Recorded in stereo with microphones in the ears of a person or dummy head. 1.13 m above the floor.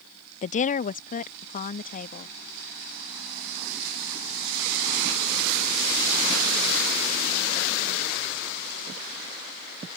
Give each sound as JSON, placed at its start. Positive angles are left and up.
{"t": 0.4, "sound": "a woman speaking", "side_deg": 40}